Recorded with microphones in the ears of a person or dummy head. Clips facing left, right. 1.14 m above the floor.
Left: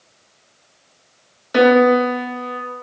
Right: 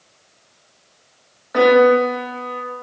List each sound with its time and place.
1.5 s a piano: 40° left (ahead or behind), 0.5 m